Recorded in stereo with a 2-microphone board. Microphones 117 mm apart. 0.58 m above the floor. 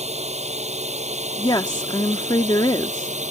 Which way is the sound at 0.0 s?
70° right (ahead or behind).